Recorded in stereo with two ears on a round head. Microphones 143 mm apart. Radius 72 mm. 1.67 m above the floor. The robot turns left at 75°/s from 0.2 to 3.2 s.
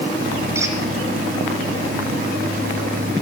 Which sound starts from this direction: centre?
A squeak, at 0.6 s.